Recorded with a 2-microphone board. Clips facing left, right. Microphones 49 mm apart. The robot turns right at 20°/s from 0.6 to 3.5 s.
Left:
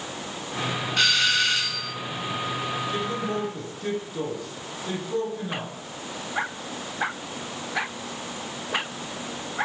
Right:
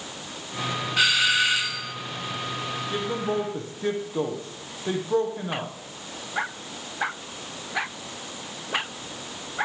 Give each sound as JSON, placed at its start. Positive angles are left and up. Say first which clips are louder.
{"t": 1.0, "sound": "a doorbell", "louder": "right 1 dB", "side_deg": -10, "distance_m": 1.7}
{"t": 2.9, "sound": "a man speaking", "louder": "right 4 dB", "side_deg": -20, "distance_m": 5.0}